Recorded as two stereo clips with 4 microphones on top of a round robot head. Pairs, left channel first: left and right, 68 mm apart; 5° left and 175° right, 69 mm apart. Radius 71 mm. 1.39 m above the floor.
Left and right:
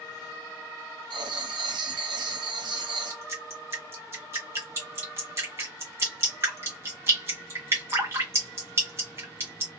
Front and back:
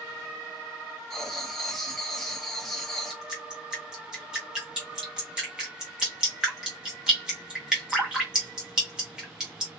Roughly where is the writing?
Right.